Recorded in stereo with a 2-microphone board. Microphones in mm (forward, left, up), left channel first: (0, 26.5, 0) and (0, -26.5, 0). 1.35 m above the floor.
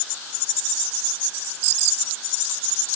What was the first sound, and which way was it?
Only background noise.